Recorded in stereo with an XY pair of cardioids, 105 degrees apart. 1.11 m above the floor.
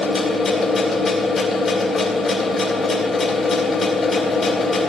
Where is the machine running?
35° left, 3 m.